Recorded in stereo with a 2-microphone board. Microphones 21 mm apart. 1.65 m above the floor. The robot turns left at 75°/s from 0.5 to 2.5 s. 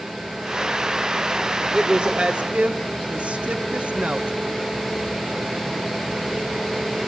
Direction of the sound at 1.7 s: 35° right (ahead or behind).